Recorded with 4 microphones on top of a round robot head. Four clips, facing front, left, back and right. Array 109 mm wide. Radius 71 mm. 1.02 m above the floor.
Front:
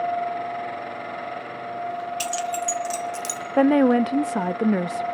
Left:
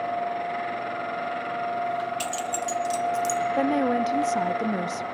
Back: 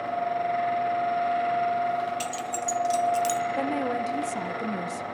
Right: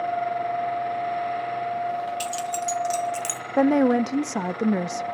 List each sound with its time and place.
2.2 s keys jangling: straight ahead, 0.6 m; by 3.4 s 70° right, 0.7 m
3.6 s a woman speaking: 25° right, 0.5 m